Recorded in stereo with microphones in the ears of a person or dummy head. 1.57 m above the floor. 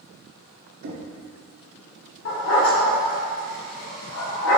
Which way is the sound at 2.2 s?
55° left (ahead or behind).